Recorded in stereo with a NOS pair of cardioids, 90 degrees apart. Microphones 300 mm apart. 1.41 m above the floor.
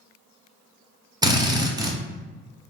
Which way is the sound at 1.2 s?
15° right.